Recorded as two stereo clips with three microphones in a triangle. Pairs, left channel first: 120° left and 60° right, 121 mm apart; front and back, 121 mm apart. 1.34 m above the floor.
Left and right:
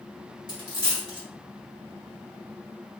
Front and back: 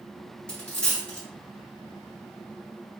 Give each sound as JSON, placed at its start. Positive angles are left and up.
{"t": 0.5, "sound": "a dropped coin", "azimuth_deg": 80, "distance_m": 1.4}